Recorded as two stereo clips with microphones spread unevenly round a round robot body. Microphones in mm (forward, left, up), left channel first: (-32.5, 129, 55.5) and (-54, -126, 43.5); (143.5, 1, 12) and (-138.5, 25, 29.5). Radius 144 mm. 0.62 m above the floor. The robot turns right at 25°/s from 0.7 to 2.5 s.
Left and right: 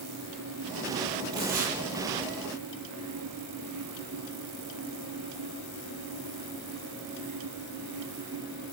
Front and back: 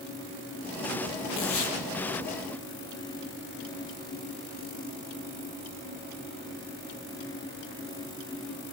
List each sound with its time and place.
1.3 s tearing paper: 40° right, 5.5 m; by 1.8 s 30° right, 5.5 m